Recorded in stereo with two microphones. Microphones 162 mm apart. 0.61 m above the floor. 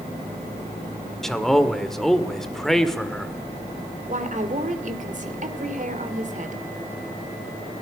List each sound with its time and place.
1.2 s a man speaking: centre (ahead or behind), 1.6 m
4.1 s a woman speaking: 50° right (ahead or behind), 2.5 m